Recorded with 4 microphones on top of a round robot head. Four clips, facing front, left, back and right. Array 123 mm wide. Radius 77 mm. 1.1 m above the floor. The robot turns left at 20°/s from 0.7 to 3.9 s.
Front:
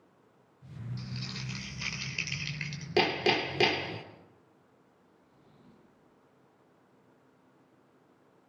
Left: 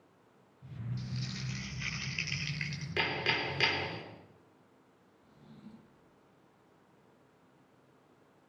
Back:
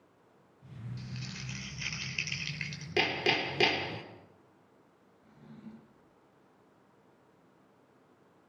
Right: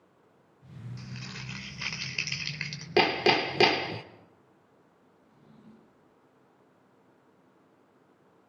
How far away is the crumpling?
About 3.5 m.